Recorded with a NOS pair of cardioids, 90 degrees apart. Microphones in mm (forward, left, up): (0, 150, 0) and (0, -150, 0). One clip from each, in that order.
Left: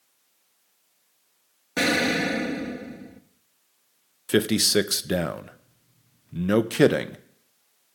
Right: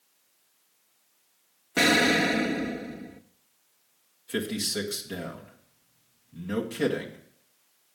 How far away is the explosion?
About 0.6 m.